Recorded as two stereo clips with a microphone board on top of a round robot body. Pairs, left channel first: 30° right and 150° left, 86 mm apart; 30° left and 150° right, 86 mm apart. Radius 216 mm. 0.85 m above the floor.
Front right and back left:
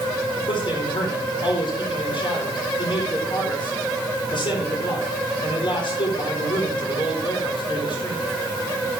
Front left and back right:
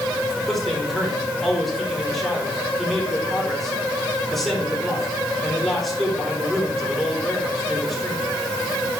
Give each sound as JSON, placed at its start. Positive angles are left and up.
{"t": 0.5, "sound": "a man speaking", "azimuth_deg": -60, "distance_m": 4.0}